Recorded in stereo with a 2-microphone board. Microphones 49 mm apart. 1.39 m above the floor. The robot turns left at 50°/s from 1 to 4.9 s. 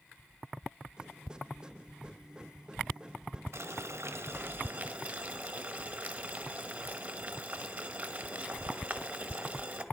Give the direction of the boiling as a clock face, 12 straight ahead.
3 o'clock.